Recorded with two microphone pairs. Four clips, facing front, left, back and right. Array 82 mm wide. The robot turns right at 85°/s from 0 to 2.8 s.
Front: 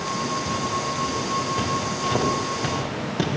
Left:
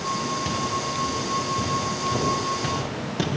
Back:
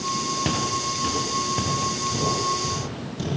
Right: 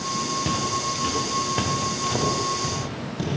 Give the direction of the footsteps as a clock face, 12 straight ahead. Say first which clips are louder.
Right 1 dB, even; 6 o'clock.